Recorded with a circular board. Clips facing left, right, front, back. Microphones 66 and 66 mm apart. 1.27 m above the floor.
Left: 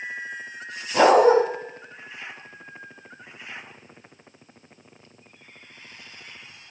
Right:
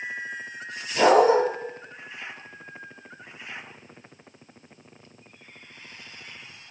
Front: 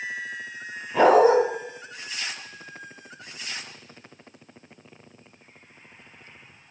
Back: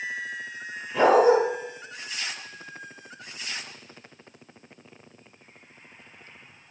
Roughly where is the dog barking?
Ahead left.